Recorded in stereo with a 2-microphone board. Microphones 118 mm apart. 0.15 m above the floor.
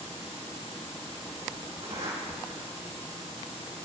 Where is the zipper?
65° right (ahead or behind), 4.5 m.